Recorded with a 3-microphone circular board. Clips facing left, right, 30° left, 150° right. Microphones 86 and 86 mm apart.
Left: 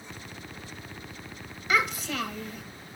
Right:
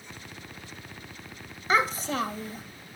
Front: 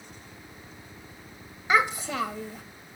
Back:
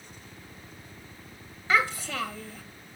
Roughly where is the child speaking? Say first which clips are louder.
Right 2 dB, front 2 dB; ahead right.